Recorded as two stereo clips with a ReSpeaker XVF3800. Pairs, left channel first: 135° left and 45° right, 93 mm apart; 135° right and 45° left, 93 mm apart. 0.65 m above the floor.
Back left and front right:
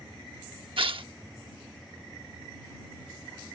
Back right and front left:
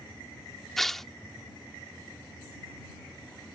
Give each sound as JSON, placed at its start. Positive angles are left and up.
{"t": 0.8, "sound": "tearing paper", "azimuth_deg": -50}